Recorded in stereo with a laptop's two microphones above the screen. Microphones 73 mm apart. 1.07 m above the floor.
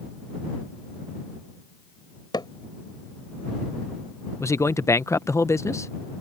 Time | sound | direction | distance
2.3 | hammering | 90° left | ?
4.4 | a man speaking | 40° left (ahead or behind) | ?